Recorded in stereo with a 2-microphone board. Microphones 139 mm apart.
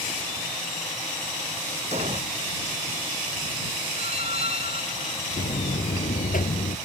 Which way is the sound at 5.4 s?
70° left (ahead or behind).